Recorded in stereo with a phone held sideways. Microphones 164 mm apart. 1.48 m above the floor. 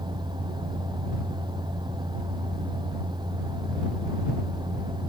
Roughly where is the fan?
Right.